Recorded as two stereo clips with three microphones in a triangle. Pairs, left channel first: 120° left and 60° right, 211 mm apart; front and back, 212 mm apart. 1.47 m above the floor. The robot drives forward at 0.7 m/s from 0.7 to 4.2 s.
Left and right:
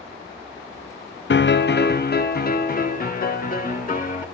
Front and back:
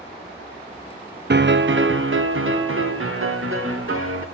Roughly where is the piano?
Behind left.